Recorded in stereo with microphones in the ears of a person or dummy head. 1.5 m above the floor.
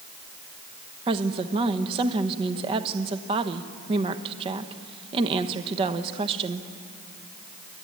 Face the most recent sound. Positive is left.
turn(degrees=-30)  # may be behind; listen again after turning